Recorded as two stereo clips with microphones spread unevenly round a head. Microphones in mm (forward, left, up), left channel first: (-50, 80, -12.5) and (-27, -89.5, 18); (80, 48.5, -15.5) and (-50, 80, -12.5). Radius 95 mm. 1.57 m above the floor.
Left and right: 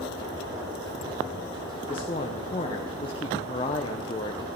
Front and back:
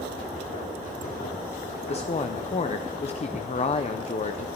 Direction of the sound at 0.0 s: 25° right.